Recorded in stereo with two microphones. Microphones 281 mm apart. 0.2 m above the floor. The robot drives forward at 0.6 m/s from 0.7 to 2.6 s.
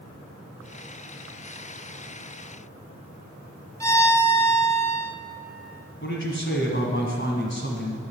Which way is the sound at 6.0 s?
40° left (ahead or behind).